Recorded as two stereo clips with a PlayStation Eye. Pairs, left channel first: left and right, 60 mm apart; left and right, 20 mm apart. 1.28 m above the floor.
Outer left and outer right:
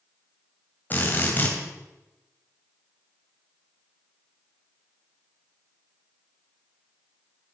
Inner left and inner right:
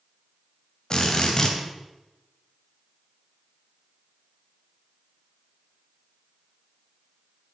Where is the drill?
30° left (ahead or behind), 2.5 m.